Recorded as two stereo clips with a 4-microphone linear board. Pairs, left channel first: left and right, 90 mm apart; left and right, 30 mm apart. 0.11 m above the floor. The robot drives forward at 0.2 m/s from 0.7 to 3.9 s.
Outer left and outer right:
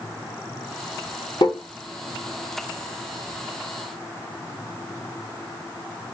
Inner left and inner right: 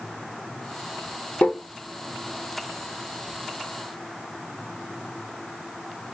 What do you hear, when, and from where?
1.4 s tapping: 60° left (ahead or behind), 2 m